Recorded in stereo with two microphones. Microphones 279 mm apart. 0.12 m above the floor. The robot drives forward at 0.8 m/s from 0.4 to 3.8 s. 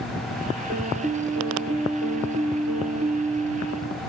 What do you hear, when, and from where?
0.7 s a piano: 35° right (ahead or behind), 2 m; by 4.0 s 50° right (ahead or behind), 1.6 m